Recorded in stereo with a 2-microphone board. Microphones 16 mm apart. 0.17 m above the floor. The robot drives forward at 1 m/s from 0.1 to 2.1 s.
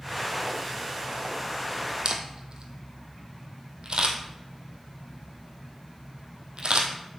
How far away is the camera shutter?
About 1.3 m.